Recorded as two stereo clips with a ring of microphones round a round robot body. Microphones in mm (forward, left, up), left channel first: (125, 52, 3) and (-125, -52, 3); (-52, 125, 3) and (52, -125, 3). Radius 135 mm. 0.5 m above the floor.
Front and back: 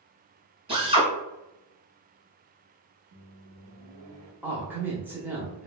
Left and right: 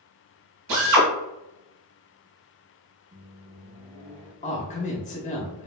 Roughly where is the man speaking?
Behind left.